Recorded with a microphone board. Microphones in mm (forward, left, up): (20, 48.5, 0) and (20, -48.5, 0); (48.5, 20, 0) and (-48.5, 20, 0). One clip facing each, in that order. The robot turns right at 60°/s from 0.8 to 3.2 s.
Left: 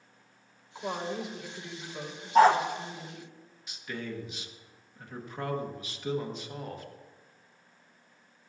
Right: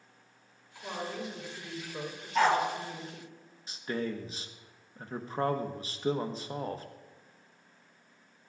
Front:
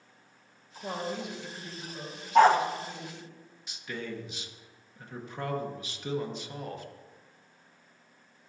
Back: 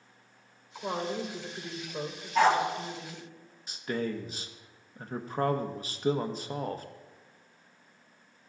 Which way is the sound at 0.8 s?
130° left.